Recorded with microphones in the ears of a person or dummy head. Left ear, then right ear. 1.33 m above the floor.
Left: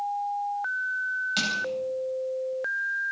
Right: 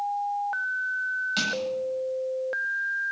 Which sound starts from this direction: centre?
Crushing, at 1.4 s.